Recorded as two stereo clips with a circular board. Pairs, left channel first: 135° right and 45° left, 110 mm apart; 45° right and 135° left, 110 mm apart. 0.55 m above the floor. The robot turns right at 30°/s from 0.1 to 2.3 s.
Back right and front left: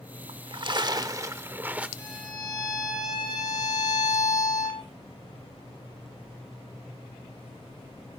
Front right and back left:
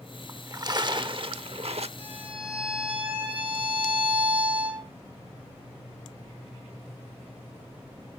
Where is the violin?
160° left, 8.5 m; by 4.8 s 170° left, 8.5 m.